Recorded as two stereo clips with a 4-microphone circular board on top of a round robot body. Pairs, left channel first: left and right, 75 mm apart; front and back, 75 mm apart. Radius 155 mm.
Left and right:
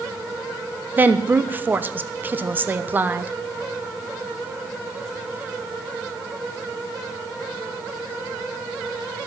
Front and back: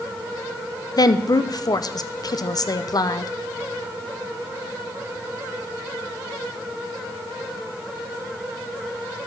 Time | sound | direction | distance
1.0 | a woman speaking | 25° right | 0.9 m